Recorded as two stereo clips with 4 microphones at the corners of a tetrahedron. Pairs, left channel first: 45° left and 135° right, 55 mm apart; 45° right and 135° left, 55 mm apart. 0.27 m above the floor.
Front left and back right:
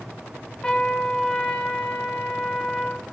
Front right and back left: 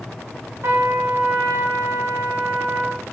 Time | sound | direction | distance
0.6 | a trumpet | 115° left | 0.5 m